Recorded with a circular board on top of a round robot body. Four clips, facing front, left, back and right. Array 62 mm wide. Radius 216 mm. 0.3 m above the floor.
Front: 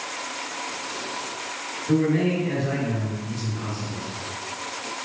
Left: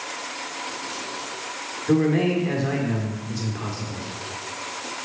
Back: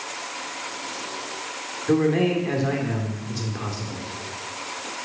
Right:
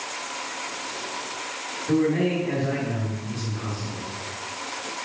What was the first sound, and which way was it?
A man speaking, 150° left.